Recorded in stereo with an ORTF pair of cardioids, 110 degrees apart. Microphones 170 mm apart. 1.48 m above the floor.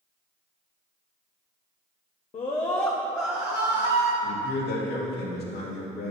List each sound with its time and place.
2.3 s a scream: 40° left, 1.2 m; by 4.1 s 35° right, 2.5 m
4.2 s a man speaking: 70° left, 3 m